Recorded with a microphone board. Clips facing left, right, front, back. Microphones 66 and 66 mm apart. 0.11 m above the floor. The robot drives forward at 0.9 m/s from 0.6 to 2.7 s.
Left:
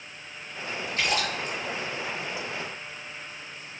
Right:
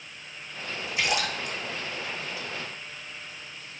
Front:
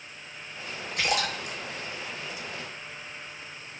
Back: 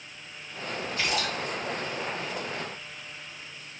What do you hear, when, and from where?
1.0 s a splash: 15° right, 3.5 m